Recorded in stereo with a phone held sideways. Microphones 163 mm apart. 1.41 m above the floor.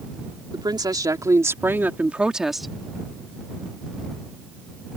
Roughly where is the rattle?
No rattle in this recording.